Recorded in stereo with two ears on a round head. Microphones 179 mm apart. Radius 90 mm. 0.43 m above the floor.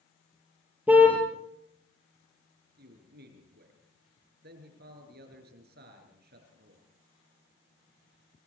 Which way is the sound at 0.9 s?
10° right (ahead or behind).